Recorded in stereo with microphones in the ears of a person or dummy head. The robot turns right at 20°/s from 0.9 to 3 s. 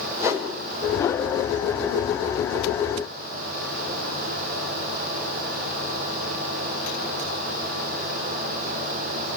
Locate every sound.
0.2 s a whoosh: 20° right (ahead or behind), 6.5 m